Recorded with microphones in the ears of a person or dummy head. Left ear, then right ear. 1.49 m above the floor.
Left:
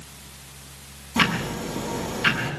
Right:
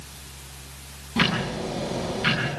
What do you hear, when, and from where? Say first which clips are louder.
0.0 s a fan: right 1 dB; 75° right (ahead or behind), 6.5 m
1.2 s ticking: left 1 dB; 15° left (ahead or behind), 6.5 m